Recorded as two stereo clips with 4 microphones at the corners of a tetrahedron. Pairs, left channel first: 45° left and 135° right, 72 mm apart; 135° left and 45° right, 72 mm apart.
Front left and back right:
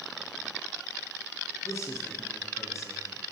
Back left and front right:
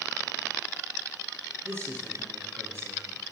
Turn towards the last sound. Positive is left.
turn(degrees=5)